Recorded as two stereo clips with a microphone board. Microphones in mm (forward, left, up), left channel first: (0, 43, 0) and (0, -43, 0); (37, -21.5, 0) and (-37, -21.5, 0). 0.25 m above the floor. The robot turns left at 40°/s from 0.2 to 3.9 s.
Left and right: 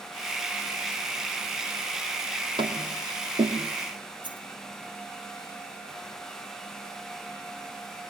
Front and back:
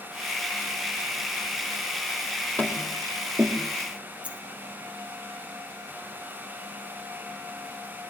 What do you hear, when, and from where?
2.6 s tapping: 70° right, 4.5 m; by 3.5 s 110° right, 4.5 m
4.2 s a dropped coin: 110° right, 3 m